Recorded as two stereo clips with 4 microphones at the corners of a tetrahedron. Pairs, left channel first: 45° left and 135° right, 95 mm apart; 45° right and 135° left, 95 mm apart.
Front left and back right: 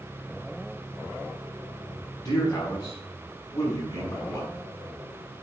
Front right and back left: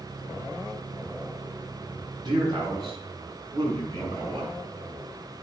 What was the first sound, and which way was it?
A man speaking, 90° left.